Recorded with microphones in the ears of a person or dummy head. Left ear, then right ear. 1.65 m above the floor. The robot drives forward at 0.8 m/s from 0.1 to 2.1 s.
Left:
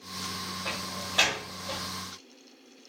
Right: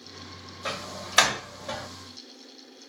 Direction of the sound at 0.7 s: 65° right (ahead or behind).